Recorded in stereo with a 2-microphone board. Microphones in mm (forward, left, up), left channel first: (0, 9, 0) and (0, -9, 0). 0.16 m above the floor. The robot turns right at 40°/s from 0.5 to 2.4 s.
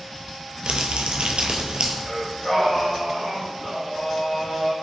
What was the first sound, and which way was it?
Crumpling, 110° right.